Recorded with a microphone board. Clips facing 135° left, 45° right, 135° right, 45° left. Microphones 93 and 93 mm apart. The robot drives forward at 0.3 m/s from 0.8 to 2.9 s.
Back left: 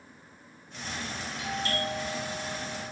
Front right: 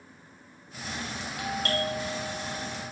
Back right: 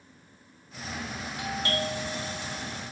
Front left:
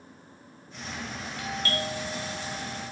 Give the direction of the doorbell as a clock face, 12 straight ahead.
2 o'clock.